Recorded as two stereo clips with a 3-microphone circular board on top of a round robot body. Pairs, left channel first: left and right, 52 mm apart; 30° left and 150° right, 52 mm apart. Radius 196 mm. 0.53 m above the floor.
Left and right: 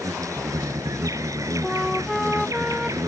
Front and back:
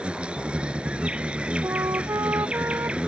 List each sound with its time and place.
0.0 s an insect: 80° right
1.6 s a flute: straight behind